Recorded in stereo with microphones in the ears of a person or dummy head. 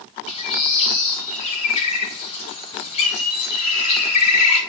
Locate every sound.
0.3 s a bird: 30° left (ahead or behind), 1.7 m